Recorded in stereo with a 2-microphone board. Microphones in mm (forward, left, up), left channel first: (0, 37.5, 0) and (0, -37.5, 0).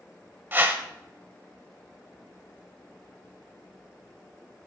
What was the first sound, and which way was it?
A whoosh, 30° right (ahead or behind).